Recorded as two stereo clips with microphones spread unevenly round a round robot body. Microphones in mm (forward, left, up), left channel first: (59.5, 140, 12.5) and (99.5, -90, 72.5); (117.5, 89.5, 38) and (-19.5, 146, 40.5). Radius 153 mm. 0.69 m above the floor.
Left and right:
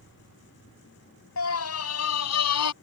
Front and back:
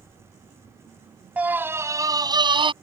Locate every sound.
1.4 s a scream: 80° left; by 2.7 s 105° left